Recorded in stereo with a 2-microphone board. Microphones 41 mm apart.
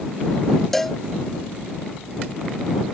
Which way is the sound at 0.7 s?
5° left (ahead or behind).